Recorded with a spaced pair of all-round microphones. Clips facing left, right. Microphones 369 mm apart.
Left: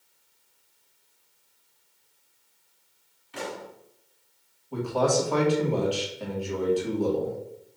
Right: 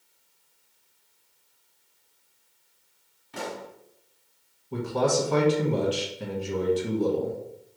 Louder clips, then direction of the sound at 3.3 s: Even; 55° right (ahead or behind).